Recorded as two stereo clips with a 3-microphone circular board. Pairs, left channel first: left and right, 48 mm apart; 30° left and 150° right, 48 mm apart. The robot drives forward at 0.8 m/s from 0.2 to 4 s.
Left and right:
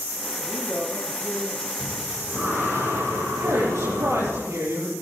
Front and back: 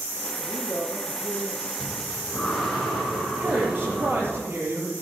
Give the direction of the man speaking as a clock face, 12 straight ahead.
12 o'clock.